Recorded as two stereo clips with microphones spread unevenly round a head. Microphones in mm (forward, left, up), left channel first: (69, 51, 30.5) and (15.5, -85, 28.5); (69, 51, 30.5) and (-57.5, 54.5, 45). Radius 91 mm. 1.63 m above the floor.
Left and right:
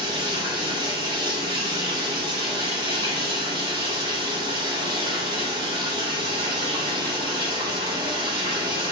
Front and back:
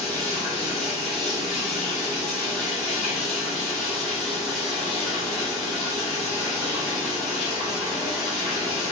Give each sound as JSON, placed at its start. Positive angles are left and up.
{"t": 0.0, "sound": "running water", "azimuth_deg": -100, "distance_m": 1.3}